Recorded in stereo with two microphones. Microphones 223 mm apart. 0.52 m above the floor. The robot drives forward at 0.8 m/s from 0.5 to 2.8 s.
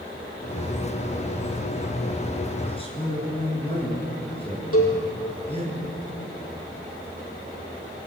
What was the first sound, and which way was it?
A man speaking, 25° left (ahead or behind).